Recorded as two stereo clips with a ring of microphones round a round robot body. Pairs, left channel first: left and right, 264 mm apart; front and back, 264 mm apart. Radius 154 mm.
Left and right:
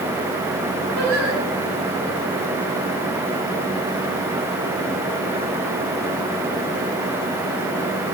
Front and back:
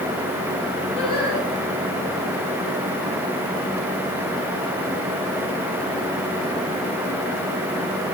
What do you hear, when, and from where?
0.9 s singing: 85° right, 5.5 m